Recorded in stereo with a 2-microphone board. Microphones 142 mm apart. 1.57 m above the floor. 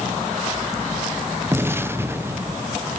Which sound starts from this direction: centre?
An explosion, at 1.5 s.